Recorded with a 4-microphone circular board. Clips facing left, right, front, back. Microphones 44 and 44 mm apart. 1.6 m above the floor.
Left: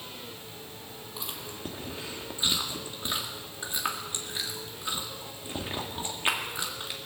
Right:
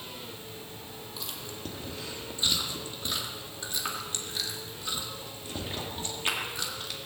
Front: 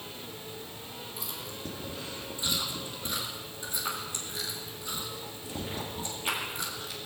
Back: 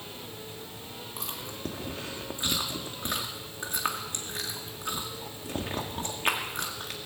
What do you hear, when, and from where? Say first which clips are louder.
1.2 s chewing: left 2 dB, back 4 dB; 155° left, 2 m